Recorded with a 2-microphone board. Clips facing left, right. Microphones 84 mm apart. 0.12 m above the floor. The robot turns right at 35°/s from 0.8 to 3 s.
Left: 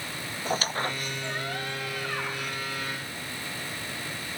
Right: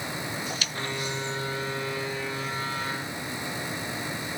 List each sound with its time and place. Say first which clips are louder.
0.5 s a squeak: left 4 dB; 40° left (ahead or behind); by 2.6 s 75° left (ahead or behind)